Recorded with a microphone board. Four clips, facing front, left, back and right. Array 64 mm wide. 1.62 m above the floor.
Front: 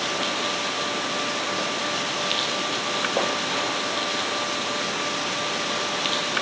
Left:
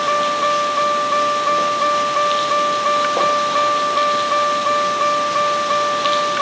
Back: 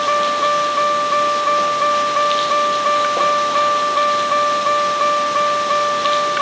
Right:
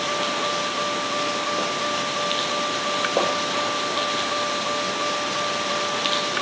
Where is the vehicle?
140° left.